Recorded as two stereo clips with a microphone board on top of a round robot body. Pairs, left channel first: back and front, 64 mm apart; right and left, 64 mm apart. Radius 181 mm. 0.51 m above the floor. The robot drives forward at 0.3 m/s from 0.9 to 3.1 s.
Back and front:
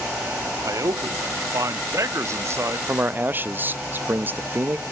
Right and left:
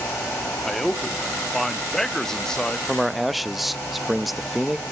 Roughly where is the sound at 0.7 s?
Ahead.